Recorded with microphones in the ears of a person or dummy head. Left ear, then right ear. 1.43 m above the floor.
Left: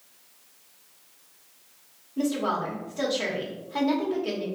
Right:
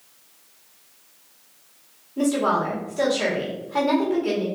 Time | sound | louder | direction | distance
2.2 | a woman speaking | right 6 dB | 5° left (ahead or behind) | 1.5 m